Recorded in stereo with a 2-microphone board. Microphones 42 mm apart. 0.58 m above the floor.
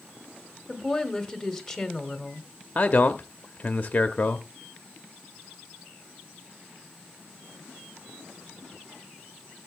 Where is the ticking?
No ticking in this recording.